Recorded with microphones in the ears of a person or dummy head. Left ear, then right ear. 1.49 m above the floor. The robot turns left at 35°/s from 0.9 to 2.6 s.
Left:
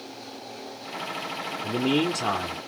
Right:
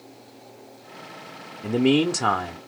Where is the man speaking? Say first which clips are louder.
Right 4 dB; 115° right, 0.6 m; by 2.6 s 150° right, 0.6 m.